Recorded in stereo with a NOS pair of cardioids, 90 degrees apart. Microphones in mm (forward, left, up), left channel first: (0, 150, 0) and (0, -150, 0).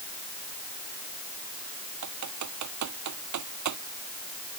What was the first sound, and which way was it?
Typing on a keyboard, 65° right.